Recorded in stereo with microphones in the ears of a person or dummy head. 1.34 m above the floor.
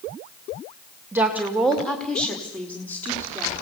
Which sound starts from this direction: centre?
A woman speaking, at 1.1 s.